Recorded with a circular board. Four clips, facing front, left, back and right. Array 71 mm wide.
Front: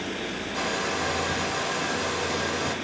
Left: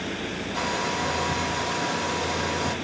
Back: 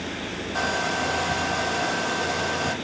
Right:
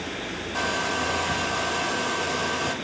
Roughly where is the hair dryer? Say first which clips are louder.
Right 1 dB, back 4 dB; right.